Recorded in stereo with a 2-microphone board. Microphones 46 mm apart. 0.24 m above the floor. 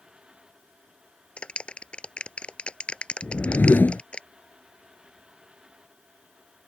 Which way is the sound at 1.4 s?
25° left (ahead or behind).